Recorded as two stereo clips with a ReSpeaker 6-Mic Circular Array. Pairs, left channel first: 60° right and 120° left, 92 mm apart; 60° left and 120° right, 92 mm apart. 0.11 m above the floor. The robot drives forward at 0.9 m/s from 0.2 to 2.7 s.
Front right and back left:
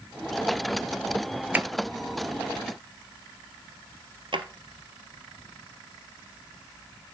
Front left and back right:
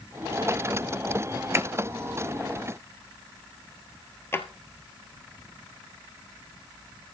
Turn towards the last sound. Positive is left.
turn(degrees=120)